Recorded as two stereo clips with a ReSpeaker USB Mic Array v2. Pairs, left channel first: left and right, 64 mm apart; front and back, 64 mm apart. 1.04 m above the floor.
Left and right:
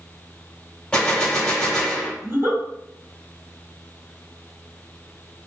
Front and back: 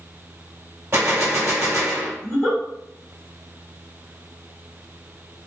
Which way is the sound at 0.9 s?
160° left.